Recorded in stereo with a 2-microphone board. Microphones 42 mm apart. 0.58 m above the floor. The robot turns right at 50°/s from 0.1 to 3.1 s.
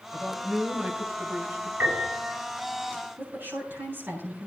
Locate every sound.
0.1 s a man speaking: 160° left, 2.5 m; by 1.7 s 120° right, 2.5 m
1.8 s a piano: 70° right (ahead or behind), 7 m; by 2.4 s 45° right (ahead or behind), 7 m
3.2 s a woman speaking: 65° right (ahead or behind), 9 m